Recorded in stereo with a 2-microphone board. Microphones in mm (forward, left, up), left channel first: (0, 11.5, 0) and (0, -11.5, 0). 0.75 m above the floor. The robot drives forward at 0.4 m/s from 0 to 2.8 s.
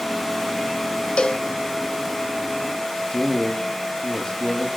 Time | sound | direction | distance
1.2 | a cowbell | 45° left (ahead or behind) | 0.6 m
3.0 | a man speaking | 35° left (ahead or behind) | 1.6 m